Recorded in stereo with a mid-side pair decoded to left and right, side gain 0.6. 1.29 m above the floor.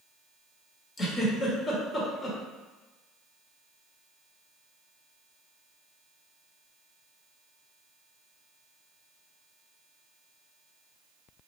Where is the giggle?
35° left, 1.1 m.